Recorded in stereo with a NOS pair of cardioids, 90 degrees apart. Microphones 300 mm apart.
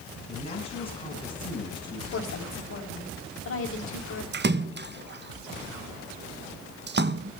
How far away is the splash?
About 0.9 m.